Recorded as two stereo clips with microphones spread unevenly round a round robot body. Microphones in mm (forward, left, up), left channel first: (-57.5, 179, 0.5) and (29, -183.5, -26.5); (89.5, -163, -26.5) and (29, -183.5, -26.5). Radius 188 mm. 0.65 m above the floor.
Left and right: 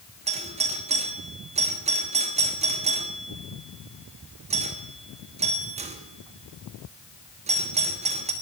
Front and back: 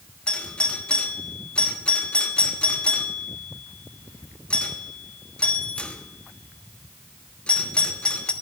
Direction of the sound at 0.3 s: 35° right.